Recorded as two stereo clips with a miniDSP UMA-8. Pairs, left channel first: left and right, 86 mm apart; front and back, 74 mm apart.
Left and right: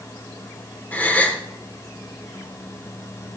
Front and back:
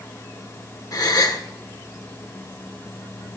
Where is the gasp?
20° left, 1.0 m.